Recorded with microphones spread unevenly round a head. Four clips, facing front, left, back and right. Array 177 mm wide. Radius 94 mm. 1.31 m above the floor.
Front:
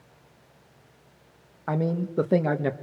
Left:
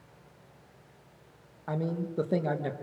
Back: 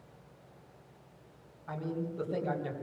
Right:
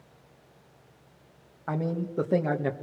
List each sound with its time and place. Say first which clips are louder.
1.7 s a man speaking: right 2 dB, front 9 dB; 5° right, 1.8 m